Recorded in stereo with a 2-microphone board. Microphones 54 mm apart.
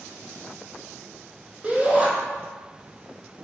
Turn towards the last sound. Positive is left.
turn(degrees=-20)  # may be behind; listen again after turning